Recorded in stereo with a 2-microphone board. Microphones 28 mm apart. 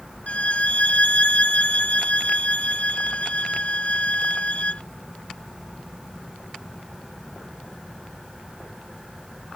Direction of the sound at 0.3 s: 55° left (ahead or behind).